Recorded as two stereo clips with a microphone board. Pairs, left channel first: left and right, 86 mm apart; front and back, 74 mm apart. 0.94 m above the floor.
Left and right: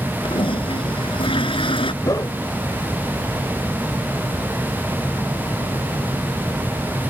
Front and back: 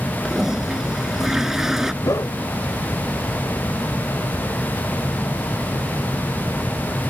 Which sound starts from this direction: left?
A toilet flushing, at 0.2 s.